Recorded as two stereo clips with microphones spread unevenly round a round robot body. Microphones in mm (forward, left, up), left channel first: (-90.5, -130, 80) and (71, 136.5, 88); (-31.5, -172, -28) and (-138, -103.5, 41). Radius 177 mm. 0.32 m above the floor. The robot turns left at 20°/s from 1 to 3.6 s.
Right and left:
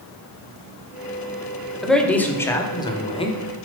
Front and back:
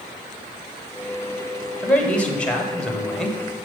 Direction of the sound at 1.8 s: 35° right.